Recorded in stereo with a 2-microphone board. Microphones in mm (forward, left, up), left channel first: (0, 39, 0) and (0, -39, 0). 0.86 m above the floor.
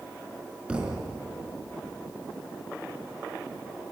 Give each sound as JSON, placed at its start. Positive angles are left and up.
{"t": 0.7, "sound": "a thud", "side_deg": -10, "distance_m": 4.0}